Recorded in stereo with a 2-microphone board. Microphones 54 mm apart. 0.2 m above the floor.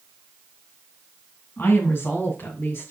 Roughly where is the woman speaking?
Left.